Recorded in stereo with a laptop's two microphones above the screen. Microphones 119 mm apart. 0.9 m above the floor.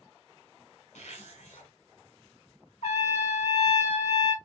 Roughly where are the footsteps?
No footsteps in this recording.